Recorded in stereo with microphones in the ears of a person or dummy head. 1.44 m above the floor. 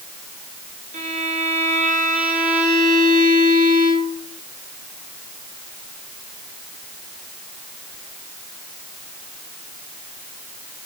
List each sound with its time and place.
0.9 s a violin: 40° right (ahead or behind), 3 m